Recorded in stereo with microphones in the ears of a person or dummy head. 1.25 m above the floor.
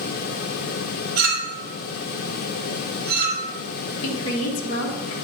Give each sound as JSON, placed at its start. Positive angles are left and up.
{"t": 1.2, "sound": "a clink", "side_deg": -55, "distance_m": 2.5}
{"t": 4.0, "sound": "a woman speaking", "side_deg": 70, "distance_m": 1.4}